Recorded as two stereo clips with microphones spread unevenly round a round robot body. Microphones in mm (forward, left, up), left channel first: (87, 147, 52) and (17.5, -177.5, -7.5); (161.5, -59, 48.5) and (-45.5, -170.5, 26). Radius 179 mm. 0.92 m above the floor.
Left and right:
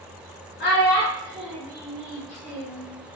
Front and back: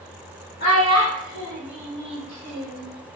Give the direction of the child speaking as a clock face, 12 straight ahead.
8 o'clock.